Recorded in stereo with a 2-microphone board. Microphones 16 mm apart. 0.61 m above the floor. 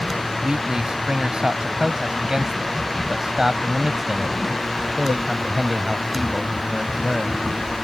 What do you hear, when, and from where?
0.4 s a man speaking: 60° right (ahead or behind); by 7.4 s 5° left (ahead or behind)